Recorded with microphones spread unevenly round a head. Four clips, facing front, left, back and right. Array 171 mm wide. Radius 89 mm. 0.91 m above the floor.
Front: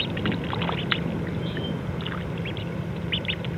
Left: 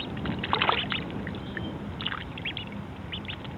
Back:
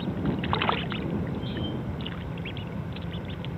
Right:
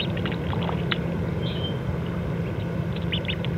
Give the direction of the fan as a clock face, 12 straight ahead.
2 o'clock.